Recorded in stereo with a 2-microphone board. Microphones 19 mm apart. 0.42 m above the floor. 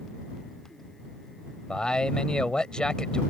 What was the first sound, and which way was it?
A man speaking, 55° left (ahead or behind).